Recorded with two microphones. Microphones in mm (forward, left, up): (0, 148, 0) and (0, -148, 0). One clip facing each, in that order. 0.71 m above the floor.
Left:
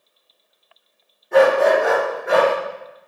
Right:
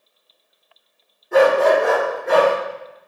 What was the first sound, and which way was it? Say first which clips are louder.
A dog barking: even; 5° right (ahead or behind).